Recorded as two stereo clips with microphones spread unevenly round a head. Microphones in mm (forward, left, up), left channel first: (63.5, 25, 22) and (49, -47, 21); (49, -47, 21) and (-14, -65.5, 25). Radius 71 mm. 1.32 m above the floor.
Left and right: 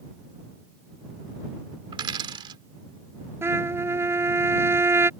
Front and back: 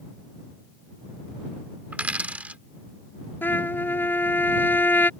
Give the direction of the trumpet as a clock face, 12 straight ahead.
1 o'clock.